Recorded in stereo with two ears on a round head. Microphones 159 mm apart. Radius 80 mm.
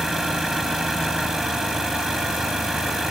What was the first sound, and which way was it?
An engine running, centre (ahead or behind).